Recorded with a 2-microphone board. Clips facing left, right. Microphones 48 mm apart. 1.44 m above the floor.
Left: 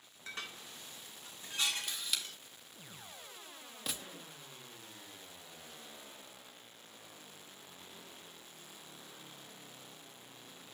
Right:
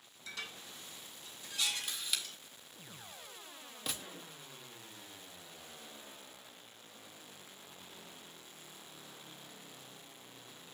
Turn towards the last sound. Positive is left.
turn(degrees=5)  # may be behind; listen again after turning